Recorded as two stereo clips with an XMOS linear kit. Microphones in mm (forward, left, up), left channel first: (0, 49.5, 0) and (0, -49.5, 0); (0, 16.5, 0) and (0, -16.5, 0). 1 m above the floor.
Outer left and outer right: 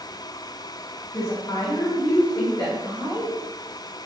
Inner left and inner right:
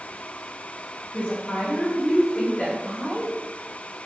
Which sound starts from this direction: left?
A woman speaking, at 1.1 s.